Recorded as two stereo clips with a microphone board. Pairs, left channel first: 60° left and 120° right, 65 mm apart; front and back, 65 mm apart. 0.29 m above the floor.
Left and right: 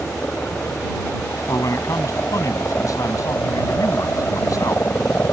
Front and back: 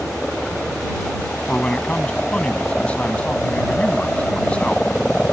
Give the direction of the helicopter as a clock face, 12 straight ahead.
10 o'clock.